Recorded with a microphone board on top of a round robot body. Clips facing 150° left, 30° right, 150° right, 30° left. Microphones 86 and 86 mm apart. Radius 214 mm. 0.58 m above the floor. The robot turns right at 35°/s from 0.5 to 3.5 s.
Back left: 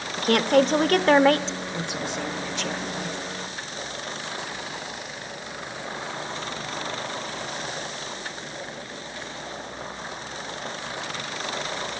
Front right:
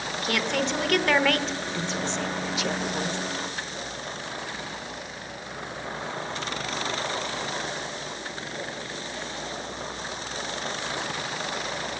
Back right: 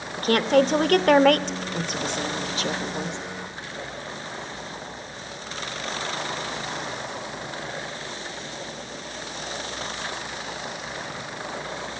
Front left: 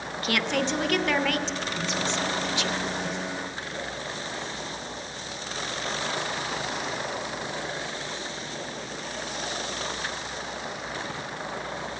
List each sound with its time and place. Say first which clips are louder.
0.2 s a woman speaking: back left 9 dB, back right 8 dB; 175° left, 0.9 m; by 3.2 s 95° right, 0.9 m